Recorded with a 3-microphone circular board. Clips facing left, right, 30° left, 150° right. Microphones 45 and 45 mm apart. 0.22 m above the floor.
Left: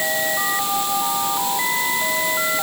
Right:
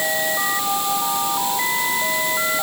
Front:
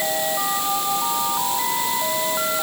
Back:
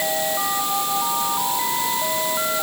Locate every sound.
Only background noise.